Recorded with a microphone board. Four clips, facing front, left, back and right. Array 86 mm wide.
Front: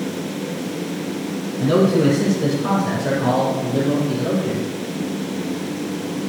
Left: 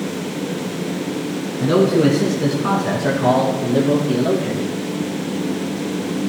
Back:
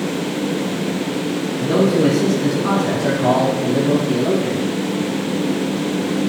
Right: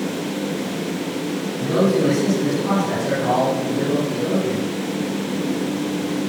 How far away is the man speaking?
About 1.8 m.